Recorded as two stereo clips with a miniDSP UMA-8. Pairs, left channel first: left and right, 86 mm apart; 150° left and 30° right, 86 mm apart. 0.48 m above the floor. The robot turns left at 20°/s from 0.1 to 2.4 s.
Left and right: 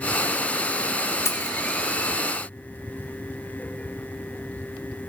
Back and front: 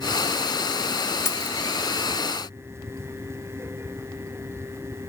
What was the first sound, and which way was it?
Keys jangling, 115° left.